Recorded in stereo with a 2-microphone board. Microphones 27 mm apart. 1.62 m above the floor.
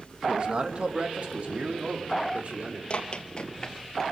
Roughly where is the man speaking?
Right.